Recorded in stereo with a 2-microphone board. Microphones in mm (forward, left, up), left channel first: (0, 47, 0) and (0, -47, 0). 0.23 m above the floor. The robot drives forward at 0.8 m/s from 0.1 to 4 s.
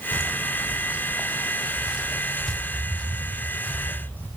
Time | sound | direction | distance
0.1 | footsteps | 35° right (ahead or behind) | 2.5 m